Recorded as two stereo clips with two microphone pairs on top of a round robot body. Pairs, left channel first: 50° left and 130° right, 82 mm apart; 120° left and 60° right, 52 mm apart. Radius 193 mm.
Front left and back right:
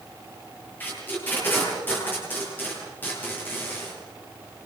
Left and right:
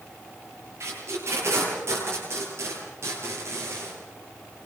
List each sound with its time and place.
0.8 s tape being pulled: 15° right, 10 m